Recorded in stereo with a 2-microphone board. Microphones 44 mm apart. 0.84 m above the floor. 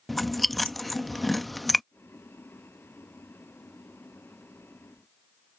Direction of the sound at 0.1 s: 5° left (ahead or behind).